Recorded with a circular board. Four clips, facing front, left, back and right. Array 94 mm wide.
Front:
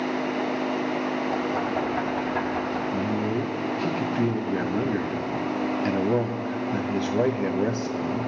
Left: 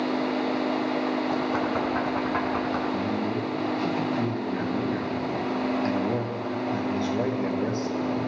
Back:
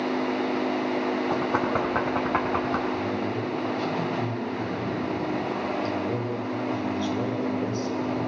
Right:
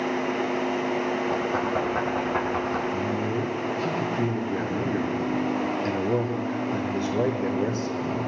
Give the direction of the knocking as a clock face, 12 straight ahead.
6 o'clock.